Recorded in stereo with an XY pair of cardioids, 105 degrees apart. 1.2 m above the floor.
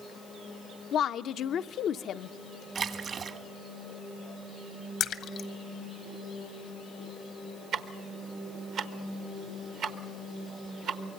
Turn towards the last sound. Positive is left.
turn(degrees=-70)